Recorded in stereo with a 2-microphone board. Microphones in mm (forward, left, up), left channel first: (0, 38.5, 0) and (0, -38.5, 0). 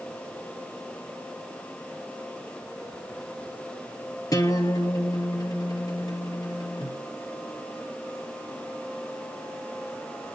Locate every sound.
4.3 s a guitar: 50° left (ahead or behind), 2.5 m